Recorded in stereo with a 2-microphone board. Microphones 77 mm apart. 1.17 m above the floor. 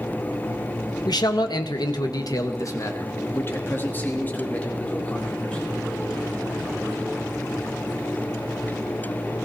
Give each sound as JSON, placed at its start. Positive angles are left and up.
{"t": 1.1, "sound": "a man speaking", "side_deg": 65, "distance_m": 1.9}